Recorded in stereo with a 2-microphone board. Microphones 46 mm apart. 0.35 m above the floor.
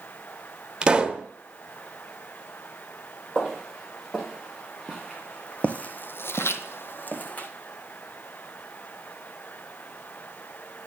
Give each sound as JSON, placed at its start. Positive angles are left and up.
{"t": 0.8, "sound": "a pop", "side_deg": -20, "distance_m": 0.9}
{"t": 3.4, "sound": "footsteps", "side_deg": 5, "distance_m": 3.5}